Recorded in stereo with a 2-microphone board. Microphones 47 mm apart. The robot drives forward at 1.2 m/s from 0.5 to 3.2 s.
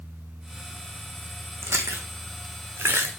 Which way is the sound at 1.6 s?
80° right.